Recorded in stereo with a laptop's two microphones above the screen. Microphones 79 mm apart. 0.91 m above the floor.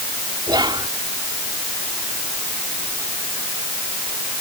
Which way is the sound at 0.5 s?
70° right (ahead or behind).